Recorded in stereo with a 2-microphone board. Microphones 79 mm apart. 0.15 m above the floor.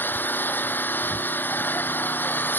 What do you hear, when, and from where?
0.0 s an engine running: 25° left (ahead or behind)